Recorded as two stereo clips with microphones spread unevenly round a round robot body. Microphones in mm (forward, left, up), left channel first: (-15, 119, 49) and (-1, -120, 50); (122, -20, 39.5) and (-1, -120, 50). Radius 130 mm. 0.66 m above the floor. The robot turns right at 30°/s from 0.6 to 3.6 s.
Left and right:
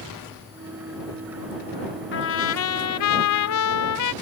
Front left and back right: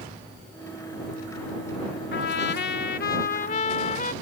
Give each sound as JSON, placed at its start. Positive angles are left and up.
{"t": 2.1, "sound": "a trumpet", "azimuth_deg": 50}